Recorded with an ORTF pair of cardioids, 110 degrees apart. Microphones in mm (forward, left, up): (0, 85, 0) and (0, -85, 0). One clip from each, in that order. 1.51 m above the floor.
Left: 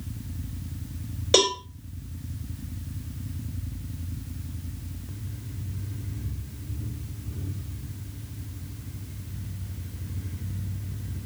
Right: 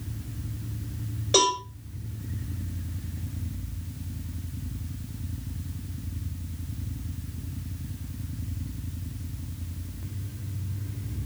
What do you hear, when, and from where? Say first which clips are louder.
1.3 s a cowbell: left 1 dB; 45° left, 2.5 m